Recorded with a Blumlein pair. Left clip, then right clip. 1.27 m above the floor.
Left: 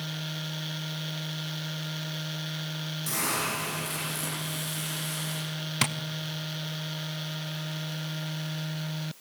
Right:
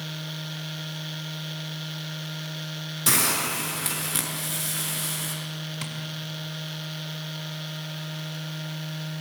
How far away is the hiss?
About 6.5 m.